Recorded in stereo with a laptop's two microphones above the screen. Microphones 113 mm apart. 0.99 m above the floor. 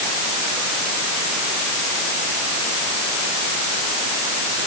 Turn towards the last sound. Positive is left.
No sound to turn to.